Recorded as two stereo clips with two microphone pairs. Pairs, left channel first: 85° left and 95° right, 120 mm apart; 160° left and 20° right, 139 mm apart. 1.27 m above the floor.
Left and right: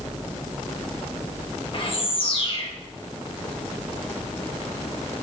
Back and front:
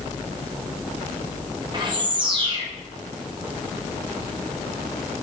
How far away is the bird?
About 1.2 m.